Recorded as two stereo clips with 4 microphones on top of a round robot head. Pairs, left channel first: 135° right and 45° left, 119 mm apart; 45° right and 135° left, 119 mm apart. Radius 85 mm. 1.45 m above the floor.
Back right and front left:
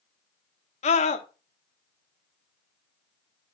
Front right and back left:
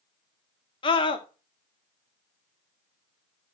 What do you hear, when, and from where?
0.8 s a scream: 100° right, 1.2 m